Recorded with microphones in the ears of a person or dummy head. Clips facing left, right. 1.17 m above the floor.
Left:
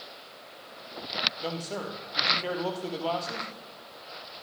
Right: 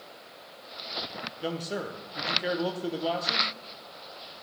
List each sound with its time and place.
1.4 s a man speaking: 10° right (ahead or behind), 0.9 m